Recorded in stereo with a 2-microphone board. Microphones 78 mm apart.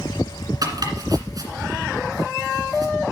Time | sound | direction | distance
0.6 | chopping | 55° right (ahead or behind) | 1.8 m